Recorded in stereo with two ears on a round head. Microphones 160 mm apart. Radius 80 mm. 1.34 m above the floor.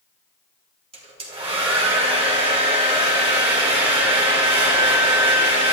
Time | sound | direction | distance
0.9 | a hair dryer | 35° right (ahead or behind) | 3 m